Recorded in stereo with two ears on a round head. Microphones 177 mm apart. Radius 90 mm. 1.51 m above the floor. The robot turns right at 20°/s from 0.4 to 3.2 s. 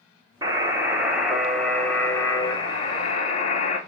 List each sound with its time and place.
0.4 s a buzzer: 20° right, 0.9 m; by 3.8 s 35° left, 0.9 m